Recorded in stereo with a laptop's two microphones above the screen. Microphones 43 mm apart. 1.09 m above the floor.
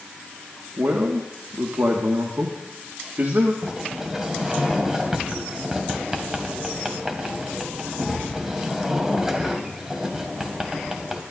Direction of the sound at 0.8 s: 65° right (ahead or behind).